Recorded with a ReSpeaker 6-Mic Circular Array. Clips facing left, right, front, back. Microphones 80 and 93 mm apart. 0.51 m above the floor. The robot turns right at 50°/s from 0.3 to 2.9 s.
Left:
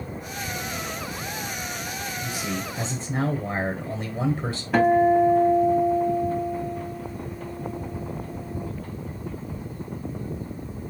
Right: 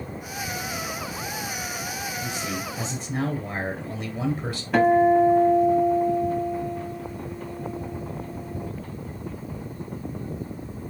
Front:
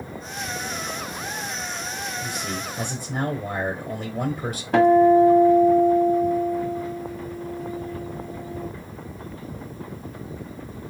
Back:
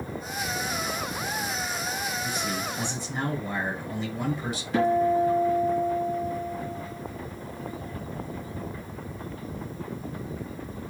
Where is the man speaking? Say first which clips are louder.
Left 2 dB, even; 10° right, 1.3 m; by 4.6 s 20° left, 1.3 m.